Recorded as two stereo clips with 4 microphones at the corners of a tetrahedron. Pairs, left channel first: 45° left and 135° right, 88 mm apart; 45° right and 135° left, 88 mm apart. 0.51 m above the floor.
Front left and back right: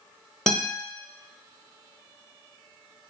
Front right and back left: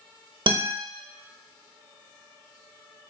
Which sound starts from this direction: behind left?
A guitar, at 0.5 s.